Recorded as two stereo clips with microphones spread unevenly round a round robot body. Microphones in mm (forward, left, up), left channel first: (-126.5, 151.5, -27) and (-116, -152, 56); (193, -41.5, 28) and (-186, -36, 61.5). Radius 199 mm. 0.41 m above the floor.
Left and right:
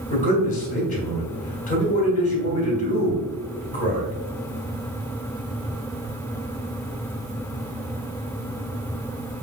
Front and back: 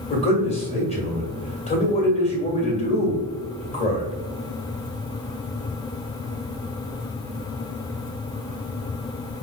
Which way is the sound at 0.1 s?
60° left.